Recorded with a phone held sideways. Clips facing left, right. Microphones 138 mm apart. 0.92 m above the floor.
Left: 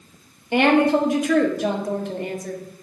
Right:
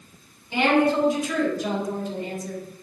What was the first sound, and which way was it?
A woman speaking, 70° left (ahead or behind).